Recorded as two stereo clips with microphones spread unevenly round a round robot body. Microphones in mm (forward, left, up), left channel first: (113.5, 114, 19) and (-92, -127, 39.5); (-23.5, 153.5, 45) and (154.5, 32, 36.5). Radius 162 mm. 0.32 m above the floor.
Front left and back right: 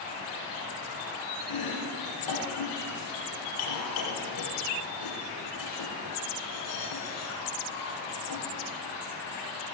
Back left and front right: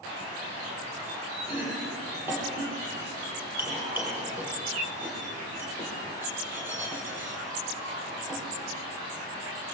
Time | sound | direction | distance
1.5 | chopping | 45° left | 9.5 m